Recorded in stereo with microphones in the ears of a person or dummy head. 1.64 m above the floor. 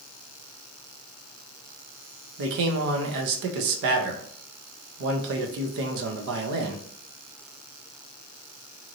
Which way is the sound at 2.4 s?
55° right (ahead or behind).